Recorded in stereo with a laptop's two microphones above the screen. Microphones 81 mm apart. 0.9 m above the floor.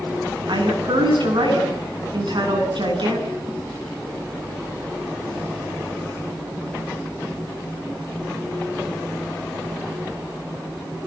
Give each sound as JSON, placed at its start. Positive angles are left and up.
{"t": 0.5, "sound": "a woman speaking", "side_deg": -70, "distance_m": 8.5}